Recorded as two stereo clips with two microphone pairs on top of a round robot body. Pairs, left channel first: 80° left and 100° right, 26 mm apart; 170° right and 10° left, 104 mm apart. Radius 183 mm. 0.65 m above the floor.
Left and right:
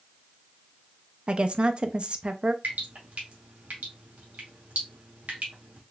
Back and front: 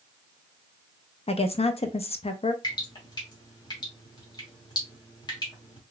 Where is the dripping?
115° right, 0.9 m.